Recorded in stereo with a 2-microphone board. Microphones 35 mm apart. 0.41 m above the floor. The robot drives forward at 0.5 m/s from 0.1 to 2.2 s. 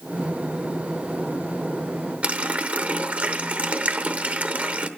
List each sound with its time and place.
2.2 s a running tap: 40° right (ahead or behind), 0.7 m